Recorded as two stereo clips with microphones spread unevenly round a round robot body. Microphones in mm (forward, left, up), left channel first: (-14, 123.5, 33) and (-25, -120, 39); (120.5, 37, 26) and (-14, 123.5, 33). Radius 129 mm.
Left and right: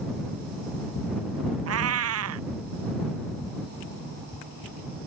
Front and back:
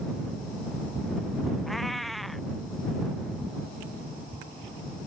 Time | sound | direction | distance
1.7 | a cat meowing | 120° right | ?